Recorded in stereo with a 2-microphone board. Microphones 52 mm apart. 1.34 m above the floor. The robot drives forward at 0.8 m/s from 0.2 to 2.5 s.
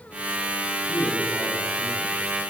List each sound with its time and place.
0.9 s a man speaking: 35° right (ahead or behind), 4.5 m; by 2.1 s 30° right (ahead or behind), 5.5 m